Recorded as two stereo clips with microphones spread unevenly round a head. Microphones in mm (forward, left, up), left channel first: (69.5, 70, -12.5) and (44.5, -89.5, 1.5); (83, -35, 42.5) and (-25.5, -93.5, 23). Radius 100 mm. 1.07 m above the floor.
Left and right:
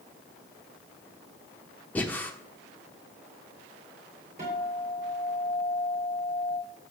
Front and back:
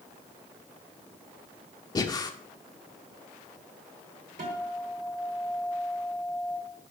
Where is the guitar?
160° right, 2.5 m.